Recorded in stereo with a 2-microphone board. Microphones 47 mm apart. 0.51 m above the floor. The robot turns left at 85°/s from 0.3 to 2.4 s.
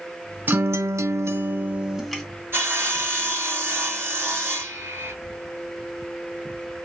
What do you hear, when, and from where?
0.5 s a guitar: 40° right, 1.0 m; by 2.2 s 170° left, 1.0 m
2.5 s sawing: 50° right (ahead or behind), 1.6 m